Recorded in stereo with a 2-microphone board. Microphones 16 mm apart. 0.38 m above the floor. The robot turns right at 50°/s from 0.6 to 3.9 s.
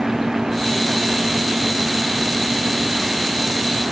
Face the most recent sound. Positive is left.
No sound to turn to.